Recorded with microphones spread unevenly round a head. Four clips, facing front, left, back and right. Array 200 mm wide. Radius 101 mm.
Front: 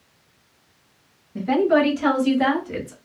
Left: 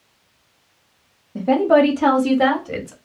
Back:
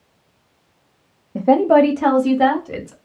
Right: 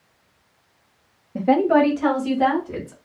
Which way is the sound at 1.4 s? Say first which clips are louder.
Left 2 dB, back 5 dB; 170° right.